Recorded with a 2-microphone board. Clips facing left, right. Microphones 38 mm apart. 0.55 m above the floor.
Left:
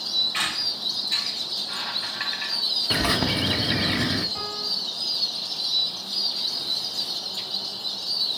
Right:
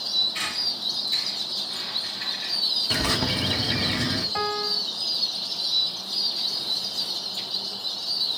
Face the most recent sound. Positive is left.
turn(degrees=-40)  # may be behind; listen again after turning